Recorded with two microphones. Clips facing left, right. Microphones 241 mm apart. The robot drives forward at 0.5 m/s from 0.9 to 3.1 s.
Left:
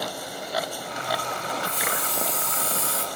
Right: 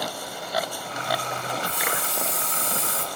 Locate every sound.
1.6 s a hiss: 10° right (ahead or behind), 1.4 m; by 3.1 s 20° right (ahead or behind), 0.8 m